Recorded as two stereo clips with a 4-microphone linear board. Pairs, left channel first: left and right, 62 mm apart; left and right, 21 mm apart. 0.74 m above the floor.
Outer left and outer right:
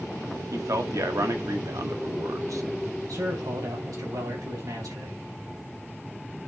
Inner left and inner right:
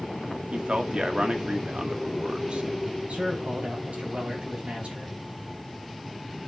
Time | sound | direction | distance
0.5 | a man speaking | 60° right (ahead or behind) | 1.7 m
3.1 | a man speaking | 75° right (ahead or behind) | 5 m